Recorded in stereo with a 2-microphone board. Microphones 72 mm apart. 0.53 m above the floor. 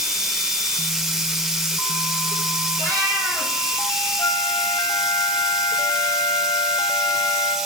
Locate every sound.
0.0 s running water: 5° right (ahead or behind), 1.2 m
2.8 s a cat meowing: 55° right (ahead or behind), 3 m
4.2 s a flute: 50° left (ahead or behind), 0.8 m